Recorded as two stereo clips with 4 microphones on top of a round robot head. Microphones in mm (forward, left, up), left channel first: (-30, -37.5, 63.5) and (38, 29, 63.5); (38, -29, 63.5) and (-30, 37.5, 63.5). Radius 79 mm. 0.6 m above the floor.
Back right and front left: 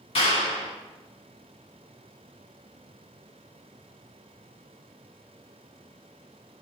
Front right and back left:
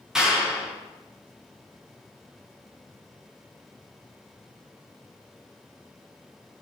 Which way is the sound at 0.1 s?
140° right.